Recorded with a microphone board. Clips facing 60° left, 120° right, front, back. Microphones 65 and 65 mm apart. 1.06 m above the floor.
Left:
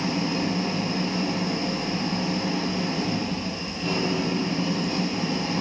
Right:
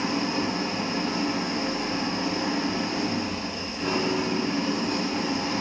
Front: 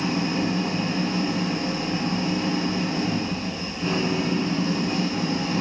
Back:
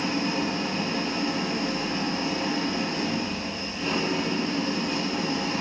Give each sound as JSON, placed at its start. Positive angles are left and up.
{"t": 0.0, "sound": "an engine running", "azimuth_deg": -80, "distance_m": 5.5}